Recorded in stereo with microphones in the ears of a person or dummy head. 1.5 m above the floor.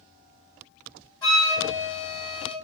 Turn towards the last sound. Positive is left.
turn(degrees=5)  # may be behind; listen again after turning